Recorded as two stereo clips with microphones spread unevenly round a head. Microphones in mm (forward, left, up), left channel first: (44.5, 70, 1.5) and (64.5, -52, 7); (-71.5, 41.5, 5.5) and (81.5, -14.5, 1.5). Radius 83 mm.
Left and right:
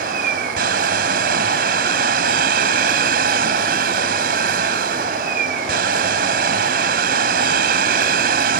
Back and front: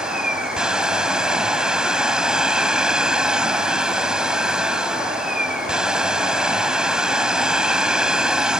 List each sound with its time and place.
0.0 s a machine running: 105° right